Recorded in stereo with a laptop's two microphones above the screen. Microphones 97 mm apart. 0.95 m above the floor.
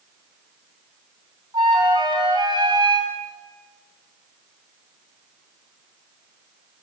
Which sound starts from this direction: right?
A flute, at 1.5 s.